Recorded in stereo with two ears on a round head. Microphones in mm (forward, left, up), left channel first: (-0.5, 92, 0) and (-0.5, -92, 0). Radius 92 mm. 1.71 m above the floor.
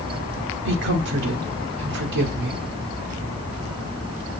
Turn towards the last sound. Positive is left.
turn(degrees=-65)  # may be behind; listen again after turning